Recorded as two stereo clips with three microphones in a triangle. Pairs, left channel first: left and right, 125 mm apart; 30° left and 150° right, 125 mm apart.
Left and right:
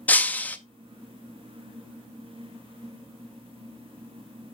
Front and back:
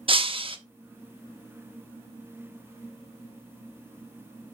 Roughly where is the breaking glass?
Behind.